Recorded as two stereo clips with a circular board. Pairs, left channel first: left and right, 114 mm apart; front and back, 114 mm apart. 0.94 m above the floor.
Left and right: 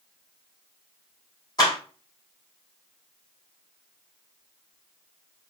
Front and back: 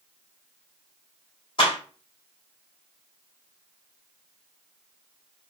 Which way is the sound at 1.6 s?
40° left.